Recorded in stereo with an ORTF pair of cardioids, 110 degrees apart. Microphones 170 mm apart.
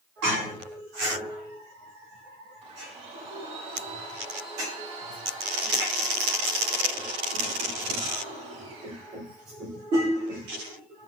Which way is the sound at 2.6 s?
40° right.